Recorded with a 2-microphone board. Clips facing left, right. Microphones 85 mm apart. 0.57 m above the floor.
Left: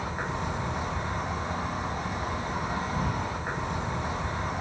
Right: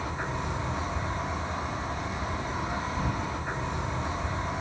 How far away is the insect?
About 0.9 m.